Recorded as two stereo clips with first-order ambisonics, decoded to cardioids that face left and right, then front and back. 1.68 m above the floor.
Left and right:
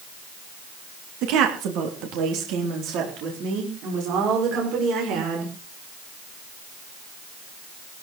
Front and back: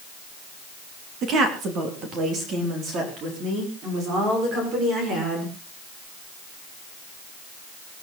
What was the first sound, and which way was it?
A woman speaking, 125° right.